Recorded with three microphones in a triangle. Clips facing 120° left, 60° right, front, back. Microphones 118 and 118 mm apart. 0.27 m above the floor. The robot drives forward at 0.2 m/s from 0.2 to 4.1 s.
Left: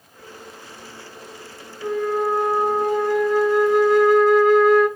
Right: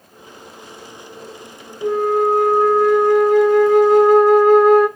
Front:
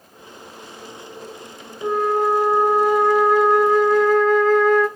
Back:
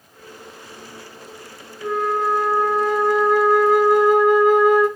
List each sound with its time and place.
1.8 s a flute: 65° right, 0.7 m; by 4.9 s 100° right, 0.7 m